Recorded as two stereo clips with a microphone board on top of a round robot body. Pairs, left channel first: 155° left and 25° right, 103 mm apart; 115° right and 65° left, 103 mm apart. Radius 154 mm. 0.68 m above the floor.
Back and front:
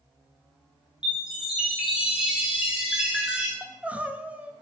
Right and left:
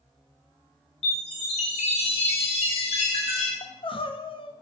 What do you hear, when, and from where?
1.0 s a chime: 105° right, 1.7 m
3.6 s crying: 95° right, 0.7 m